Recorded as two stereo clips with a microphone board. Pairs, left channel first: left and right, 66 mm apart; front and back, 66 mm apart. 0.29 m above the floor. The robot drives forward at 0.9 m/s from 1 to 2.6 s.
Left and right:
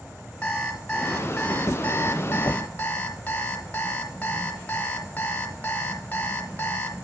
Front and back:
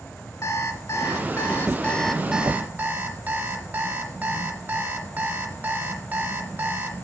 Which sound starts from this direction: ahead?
An alarm clock, at 0.4 s.